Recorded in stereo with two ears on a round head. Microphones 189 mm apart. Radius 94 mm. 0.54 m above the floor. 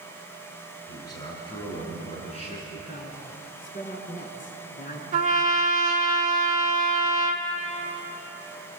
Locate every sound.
0.9 s a man speaking: 15° left (ahead or behind), 6.5 m; by 2.6 s 35° left (ahead or behind), 7.5 m
2.7 s a man speaking: 40° left (ahead or behind), 5 m
5.1 s a trumpet: 35° right (ahead or behind), 1.4 m